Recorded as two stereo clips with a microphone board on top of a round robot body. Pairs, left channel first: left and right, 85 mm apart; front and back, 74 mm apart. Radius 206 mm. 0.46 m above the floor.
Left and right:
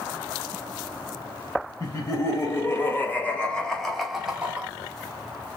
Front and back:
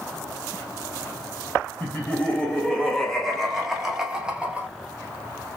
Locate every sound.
1.8 s laughter: 60° left, 1.7 m; by 4.7 s 140° right, 1.4 m